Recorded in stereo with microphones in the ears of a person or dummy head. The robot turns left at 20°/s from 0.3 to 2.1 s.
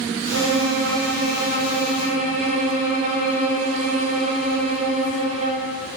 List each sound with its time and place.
0.3 s a violin: 105° right, 1.0 m; by 5.7 s 140° right, 1.0 m